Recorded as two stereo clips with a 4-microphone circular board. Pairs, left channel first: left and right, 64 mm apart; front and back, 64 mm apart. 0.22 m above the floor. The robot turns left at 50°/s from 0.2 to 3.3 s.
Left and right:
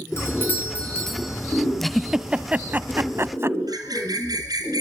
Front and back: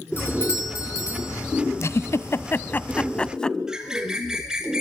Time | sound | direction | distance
0.2 | a doorbell | 50° left | 3 m
1.8 | a giggle | 5° left | 0.6 m
3.7 | a bird | 100° right | 2.5 m